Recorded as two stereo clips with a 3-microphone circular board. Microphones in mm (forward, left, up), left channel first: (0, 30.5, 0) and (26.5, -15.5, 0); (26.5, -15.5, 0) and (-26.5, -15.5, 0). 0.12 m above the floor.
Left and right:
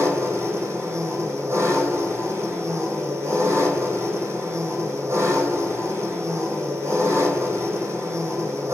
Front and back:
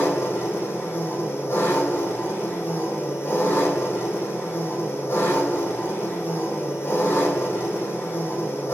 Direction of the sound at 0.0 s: 30° right.